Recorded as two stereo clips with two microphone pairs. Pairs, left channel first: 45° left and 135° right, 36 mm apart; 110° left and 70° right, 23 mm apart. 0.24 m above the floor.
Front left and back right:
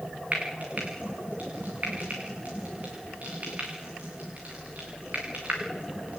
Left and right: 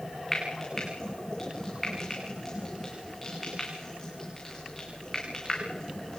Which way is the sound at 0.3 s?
Straight behind.